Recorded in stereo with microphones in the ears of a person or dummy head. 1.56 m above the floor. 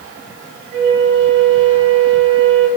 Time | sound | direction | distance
0.7 | a flute | 65° right (ahead or behind) | 0.9 m